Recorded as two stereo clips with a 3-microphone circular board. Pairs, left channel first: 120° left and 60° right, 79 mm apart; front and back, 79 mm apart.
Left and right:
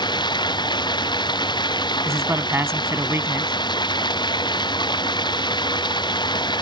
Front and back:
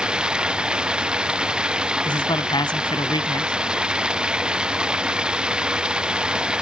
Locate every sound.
0.0 s running water: 100° left
2.0 s a man speaking: 5° right